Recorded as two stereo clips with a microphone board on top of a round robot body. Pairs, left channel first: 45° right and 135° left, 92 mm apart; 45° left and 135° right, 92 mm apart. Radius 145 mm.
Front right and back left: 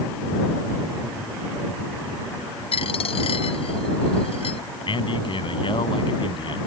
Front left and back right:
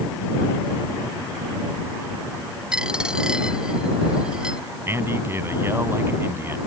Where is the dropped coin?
55° right.